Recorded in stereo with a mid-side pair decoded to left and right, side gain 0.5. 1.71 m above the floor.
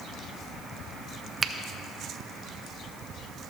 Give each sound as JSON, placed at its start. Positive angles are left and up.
{"t": 1.4, "sound": "a finger snap", "azimuth_deg": -30, "distance_m": 0.6}